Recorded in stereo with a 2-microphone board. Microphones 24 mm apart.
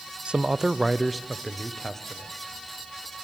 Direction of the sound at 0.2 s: 50° right (ahead or behind).